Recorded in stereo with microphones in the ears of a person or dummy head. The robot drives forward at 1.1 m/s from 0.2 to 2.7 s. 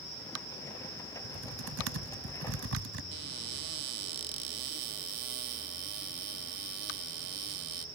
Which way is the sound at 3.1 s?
55° right (ahead or behind).